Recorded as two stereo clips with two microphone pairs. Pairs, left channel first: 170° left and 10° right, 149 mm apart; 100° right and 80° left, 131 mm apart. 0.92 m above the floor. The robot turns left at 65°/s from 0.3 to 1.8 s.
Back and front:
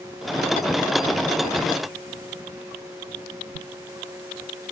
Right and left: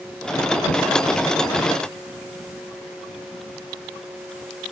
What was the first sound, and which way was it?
Only background noise.